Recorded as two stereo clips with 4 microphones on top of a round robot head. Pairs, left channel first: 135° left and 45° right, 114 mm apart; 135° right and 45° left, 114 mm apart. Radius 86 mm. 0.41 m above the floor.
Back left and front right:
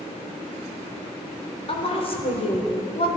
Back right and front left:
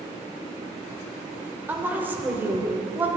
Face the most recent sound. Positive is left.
turn(degrees=115)